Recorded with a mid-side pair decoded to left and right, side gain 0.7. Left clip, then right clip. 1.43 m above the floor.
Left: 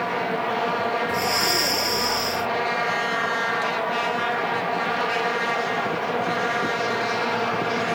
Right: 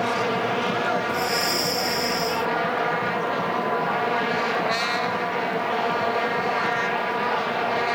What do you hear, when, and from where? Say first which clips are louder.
1.1 s breathing: left 1 dB; 15° left